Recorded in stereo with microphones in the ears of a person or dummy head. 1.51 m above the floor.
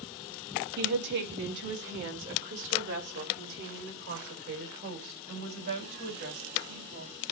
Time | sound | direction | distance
0.8 | a woman speaking | 65° right (ahead or behind) | 2.0 m